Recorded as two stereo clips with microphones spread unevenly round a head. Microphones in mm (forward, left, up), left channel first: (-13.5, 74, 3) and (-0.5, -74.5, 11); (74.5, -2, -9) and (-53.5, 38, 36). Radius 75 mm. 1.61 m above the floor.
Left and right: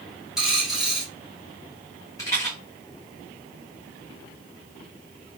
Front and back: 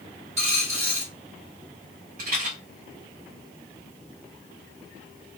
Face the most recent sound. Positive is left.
turn(degrees=165)